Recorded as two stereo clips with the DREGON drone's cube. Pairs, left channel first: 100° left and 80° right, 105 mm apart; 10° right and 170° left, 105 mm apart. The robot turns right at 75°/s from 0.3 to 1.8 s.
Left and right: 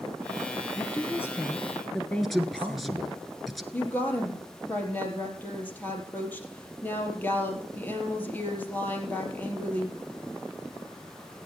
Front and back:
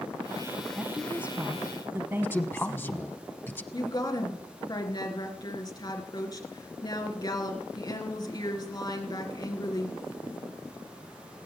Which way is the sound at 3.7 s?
30° left.